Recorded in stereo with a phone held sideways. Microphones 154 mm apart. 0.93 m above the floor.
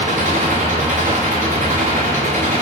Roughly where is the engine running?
Right.